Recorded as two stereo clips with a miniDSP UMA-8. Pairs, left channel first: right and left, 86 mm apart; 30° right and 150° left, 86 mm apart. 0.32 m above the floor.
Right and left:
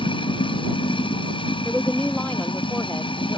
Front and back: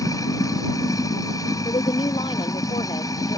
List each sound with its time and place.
0.0 s running water: 80° right
1.6 s a woman speaking: 15° right